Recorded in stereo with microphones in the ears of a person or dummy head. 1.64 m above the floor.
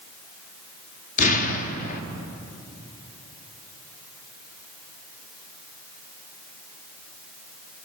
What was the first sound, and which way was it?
An explosion, 45° left (ahead or behind).